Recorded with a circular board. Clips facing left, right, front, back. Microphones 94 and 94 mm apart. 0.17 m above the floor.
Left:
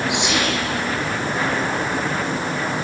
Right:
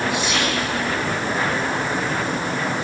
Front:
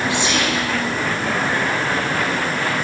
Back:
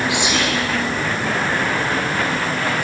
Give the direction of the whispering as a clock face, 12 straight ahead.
8 o'clock.